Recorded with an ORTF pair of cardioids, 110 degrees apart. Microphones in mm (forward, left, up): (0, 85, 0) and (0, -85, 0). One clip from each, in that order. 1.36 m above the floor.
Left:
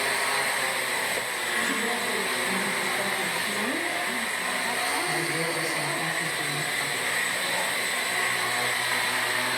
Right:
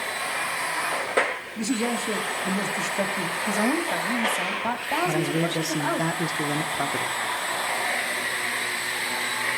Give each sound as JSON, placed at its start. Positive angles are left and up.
{"t": 1.6, "sound": "a man speaking", "azimuth_deg": -65, "distance_m": 3.0}
{"t": 3.5, "sound": "a woman speaking", "azimuth_deg": -65, "distance_m": 2.0}
{"t": 5.0, "sound": "a man speaking", "azimuth_deg": -65, "distance_m": 1.0}